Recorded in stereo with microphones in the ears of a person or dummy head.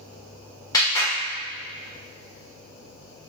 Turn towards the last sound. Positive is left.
turn(degrees=20)  # may be behind; listen again after turning